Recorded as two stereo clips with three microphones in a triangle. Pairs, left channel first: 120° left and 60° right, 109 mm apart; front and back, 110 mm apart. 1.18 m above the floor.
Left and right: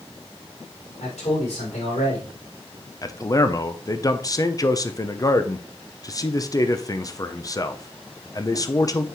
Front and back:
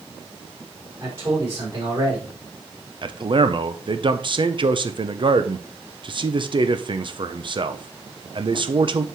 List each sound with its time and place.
1.0 s a man speaking: 115° left, 4.5 m
3.0 s a man speaking: 165° left, 0.6 m